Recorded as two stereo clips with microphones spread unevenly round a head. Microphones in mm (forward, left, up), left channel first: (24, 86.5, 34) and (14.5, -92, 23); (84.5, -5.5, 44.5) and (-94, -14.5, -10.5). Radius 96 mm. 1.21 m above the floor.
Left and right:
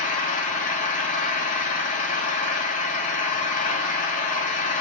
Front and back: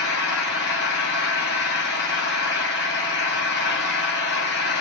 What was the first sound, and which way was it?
An engine running, 40° left.